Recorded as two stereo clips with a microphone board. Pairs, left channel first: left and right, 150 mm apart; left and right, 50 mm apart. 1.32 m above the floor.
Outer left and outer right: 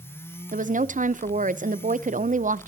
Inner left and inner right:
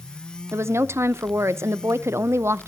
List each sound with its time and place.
0.5 s a woman speaking: 60° right (ahead or behind), 0.7 m